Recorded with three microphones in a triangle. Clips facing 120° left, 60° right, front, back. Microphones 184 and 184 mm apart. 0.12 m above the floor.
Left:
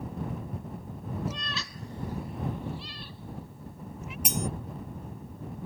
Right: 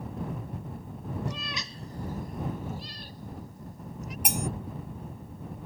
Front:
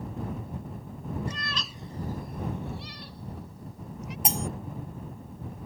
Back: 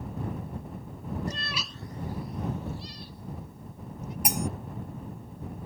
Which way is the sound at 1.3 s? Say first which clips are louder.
Even, back 1 dB; 155° right.